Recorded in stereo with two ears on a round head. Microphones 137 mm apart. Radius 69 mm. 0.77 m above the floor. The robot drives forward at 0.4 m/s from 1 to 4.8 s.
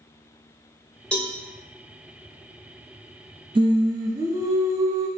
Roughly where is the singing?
Right.